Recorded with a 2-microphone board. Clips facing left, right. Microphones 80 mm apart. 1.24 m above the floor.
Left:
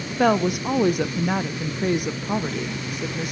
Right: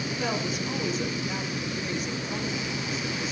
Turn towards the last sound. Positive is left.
turn(degrees=60)  # may be behind; listen again after turning